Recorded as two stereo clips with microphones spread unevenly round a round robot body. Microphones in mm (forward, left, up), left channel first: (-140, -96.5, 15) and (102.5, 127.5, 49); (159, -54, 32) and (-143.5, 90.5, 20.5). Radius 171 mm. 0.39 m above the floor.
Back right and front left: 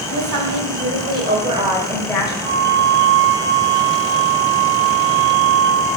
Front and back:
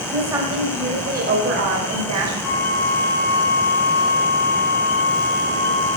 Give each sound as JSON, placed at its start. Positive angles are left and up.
{"t": 0.1, "sound": "a woman speaking", "azimuth_deg": 70, "distance_m": 2.5}
{"t": 2.4, "sound": "a flute", "azimuth_deg": 10, "distance_m": 3.0}